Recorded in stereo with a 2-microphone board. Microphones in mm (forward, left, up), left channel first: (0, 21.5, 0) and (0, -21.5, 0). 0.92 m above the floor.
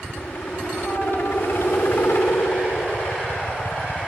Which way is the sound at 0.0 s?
65° left (ahead or behind).